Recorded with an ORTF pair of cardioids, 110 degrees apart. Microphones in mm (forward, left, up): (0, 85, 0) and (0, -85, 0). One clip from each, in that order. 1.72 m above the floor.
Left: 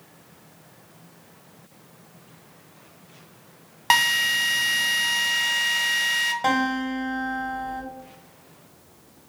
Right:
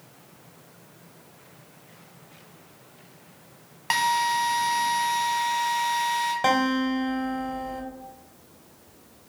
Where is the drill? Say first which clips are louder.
Left 3 dB; 30° left, 0.7 m.